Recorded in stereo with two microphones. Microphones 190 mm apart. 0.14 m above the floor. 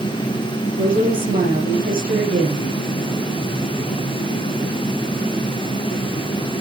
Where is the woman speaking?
50° right (ahead or behind), 4 m.